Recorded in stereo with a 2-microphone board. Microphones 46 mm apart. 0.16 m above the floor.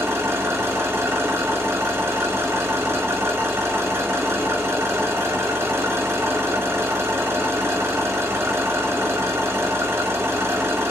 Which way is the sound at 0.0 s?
70° right (ahead or behind).